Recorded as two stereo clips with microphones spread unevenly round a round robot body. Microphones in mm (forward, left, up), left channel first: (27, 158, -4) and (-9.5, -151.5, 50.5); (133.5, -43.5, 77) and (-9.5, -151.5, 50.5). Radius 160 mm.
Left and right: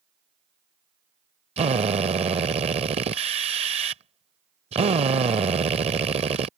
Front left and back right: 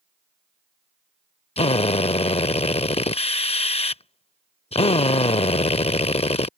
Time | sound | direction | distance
1.6 | a drill | 25° right | ?